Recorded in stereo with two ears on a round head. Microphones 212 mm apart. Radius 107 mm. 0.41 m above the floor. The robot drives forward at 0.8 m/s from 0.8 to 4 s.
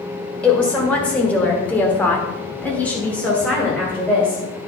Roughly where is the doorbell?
No doorbell in this recording.